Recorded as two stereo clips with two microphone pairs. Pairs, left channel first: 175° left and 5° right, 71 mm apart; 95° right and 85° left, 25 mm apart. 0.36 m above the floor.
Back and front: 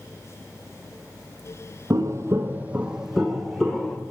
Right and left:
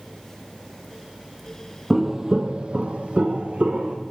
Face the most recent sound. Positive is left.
turn(degrees=95)